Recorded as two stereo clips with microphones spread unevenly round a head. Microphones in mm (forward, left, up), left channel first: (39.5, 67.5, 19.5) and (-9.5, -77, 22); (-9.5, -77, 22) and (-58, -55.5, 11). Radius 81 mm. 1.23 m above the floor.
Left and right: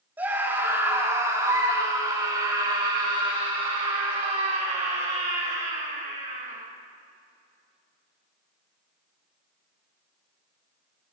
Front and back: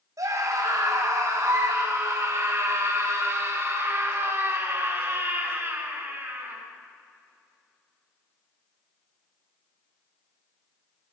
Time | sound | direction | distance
0.2 | a scream | 175° left | 6 m